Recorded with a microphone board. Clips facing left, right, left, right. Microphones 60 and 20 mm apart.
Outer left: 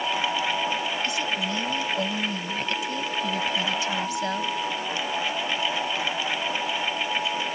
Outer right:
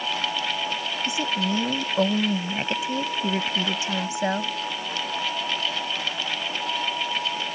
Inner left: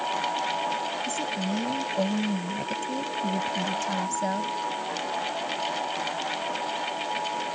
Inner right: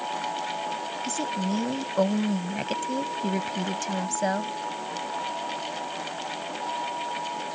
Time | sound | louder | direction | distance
1.0 | a woman speaking | outer right 2 dB, even | 25° right (ahead or behind) | ?